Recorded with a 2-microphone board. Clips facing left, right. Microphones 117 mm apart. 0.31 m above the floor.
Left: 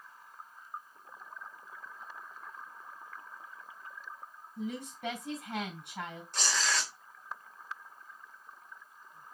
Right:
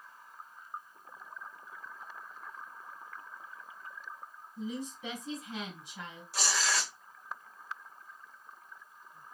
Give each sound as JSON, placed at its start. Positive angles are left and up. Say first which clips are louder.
{"t": 4.6, "sound": "a woman speaking", "louder": "even", "side_deg": 60, "distance_m": 3.0}
{"t": 6.3, "sound": "tearing paper", "louder": "right 1 dB", "side_deg": -5, "distance_m": 1.3}